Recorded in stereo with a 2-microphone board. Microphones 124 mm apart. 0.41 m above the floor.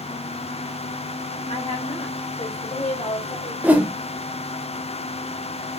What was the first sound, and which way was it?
A woman speaking, 65° left (ahead or behind).